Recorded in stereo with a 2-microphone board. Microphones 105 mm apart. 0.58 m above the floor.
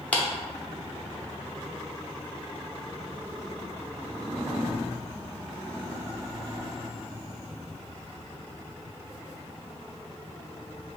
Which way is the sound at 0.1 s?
15° left (ahead or behind).